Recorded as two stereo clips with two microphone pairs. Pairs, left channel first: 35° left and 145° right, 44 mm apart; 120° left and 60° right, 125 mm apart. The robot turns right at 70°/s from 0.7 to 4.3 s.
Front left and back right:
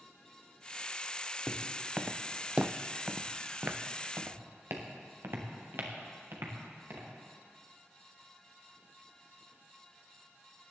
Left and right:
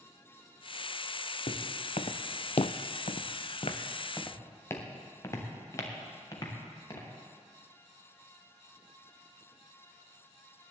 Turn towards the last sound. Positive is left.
turn(degrees=180)